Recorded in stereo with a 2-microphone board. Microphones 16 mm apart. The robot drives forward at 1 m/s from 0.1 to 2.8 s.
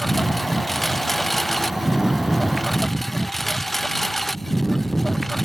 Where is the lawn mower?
5° left (ahead or behind).